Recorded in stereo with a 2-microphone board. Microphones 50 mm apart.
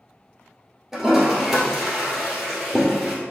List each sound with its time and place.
0.9 s a toilet flushing: 10° right (ahead or behind), 1.5 m